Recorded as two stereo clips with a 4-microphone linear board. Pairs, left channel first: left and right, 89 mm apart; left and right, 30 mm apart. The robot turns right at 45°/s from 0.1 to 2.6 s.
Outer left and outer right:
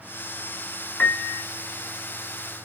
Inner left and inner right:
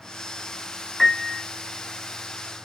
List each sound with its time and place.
1.0 s a piano: 15° left (ahead or behind), 1.5 m; by 1.4 s 5° right (ahead or behind), 1.5 m